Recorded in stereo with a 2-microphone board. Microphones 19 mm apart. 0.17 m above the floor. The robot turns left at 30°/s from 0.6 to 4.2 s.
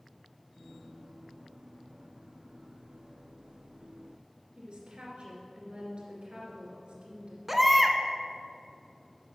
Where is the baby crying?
5° right (ahead or behind), 0.7 m.